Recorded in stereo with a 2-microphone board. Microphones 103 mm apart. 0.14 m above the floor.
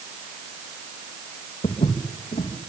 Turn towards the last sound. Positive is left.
turn(degrees=90)